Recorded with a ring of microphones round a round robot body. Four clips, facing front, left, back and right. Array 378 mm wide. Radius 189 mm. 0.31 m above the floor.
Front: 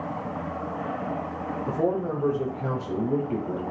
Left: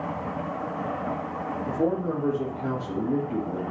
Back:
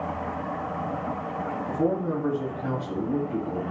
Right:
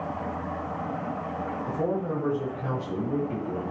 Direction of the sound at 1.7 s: Straight ahead.